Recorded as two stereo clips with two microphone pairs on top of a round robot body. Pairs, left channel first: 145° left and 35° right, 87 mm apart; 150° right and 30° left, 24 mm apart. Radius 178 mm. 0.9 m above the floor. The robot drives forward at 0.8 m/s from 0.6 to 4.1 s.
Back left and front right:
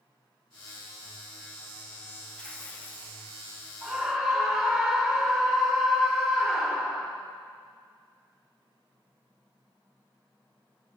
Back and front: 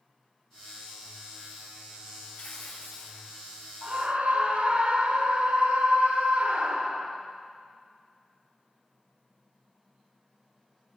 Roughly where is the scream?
Ahead left.